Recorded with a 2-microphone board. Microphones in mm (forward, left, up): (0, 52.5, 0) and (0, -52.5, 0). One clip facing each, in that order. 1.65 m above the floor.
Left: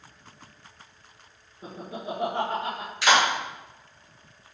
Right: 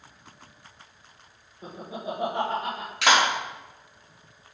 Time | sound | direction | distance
1.6 | laughter | 20° right (ahead or behind) | 1.8 m
3.0 | a clap | 75° right (ahead or behind) | 3.5 m